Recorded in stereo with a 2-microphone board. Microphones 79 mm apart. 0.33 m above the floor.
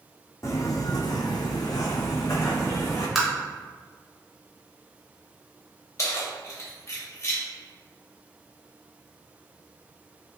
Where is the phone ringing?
No phone ringing in this recording.